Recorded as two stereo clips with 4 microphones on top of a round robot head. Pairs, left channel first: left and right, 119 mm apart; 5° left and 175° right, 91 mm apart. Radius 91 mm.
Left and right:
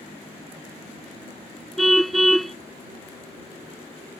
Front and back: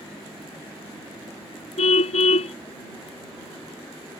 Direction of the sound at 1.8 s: Straight ahead.